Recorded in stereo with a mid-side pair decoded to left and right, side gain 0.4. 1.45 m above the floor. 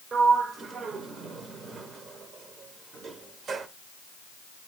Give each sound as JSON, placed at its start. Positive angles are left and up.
{"t": 0.1, "sound": "a sliding door", "azimuth_deg": -55, "distance_m": 0.6}